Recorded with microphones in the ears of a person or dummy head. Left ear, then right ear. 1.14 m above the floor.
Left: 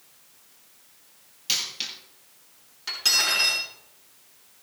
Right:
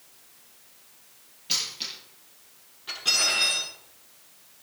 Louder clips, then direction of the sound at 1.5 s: Left 1 dB; 50° left (ahead or behind).